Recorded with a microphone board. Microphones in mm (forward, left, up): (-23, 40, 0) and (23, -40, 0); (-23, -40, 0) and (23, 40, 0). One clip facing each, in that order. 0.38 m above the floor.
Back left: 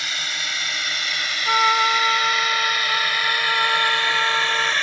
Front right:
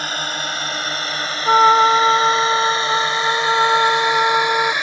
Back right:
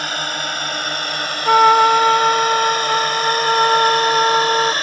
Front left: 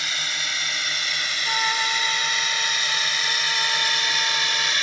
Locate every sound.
0.0 s a drone: 95° right; by 4.8 s 130° right
1.4 s a trumpet: 115° right